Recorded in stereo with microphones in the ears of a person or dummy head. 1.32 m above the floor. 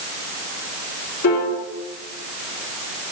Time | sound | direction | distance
1.2 | a piano | 70° left (ahead or behind) | 3.5 m